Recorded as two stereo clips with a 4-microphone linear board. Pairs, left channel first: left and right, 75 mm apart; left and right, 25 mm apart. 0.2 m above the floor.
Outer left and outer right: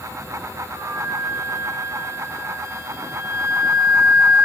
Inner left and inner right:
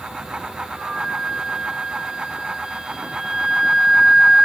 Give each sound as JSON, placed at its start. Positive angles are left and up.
{"t": 0.7, "sound": "a flute", "side_deg": -40, "distance_m": 0.9}